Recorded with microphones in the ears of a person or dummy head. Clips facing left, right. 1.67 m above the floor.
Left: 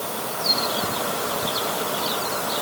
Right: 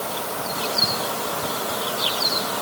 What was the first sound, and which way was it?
Only background noise.